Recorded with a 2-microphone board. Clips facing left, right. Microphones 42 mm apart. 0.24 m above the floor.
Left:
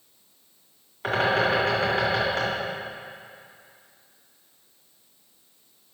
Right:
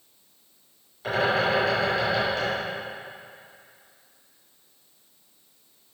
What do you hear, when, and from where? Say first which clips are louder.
1.0 s a bird: left 1 dB; 55° left (ahead or behind), 2 m